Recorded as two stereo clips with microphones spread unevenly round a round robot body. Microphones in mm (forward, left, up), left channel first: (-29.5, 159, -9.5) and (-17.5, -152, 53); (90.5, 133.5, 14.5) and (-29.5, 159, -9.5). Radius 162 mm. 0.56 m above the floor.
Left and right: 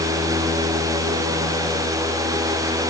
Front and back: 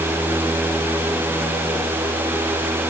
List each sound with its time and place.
Only background noise.